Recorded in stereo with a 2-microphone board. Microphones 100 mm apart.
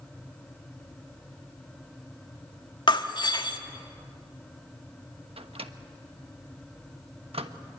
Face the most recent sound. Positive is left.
turn(degrees=-75)  # may be behind; listen again after turning